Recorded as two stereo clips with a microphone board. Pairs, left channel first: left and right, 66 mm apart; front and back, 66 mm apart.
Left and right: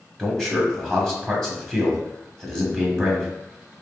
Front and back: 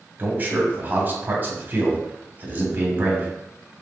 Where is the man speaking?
165° left, 1.5 m.